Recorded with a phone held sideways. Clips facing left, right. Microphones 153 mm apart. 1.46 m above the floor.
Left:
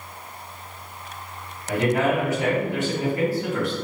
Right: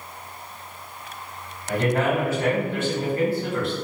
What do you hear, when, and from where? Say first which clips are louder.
1.7 s a man speaking: left 1 dB; 15° left (ahead or behind), 1.7 m